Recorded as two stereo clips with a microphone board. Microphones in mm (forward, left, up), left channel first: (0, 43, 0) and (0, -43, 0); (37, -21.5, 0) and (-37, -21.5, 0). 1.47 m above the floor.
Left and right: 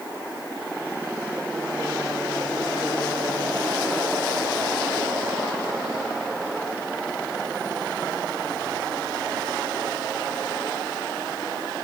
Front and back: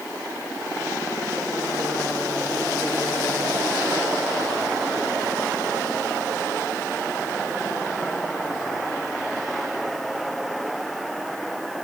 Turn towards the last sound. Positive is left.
No sound to turn to.